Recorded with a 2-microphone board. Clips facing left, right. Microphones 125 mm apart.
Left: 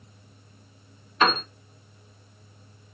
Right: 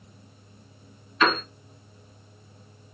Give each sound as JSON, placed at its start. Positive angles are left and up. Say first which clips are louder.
{"t": 1.2, "sound": "a piano", "louder": "even", "side_deg": 35, "distance_m": 1.5}